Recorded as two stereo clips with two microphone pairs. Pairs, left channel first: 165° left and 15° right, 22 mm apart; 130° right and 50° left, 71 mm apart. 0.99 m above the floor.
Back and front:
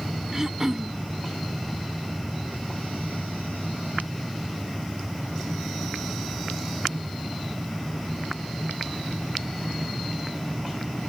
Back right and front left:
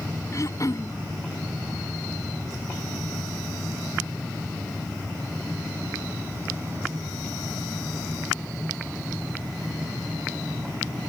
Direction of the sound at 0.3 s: 85° right.